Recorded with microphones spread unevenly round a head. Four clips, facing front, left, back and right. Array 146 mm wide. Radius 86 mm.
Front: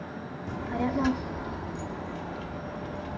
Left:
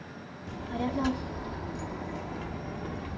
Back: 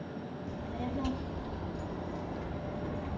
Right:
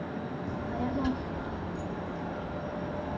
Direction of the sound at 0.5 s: 20° left.